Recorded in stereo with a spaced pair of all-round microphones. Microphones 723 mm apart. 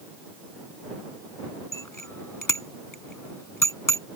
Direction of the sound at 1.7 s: 25° left (ahead or behind).